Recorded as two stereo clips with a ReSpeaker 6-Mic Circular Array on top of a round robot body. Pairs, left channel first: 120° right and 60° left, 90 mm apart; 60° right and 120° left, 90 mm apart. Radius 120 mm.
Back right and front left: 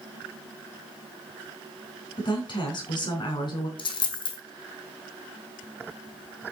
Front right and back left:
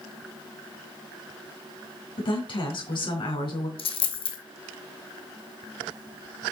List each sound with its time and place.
2.2 s a woman speaking: 85° right, 4 m
3.8 s a dropped coin: 85° right, 1.8 m